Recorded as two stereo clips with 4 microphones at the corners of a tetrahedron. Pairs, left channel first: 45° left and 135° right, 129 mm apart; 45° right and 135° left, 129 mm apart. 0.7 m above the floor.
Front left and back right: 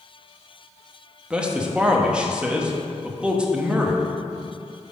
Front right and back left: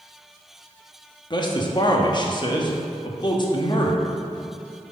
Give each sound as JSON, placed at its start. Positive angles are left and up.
{"t": 1.3, "sound": "a man speaking", "azimuth_deg": -55, "distance_m": 0.8}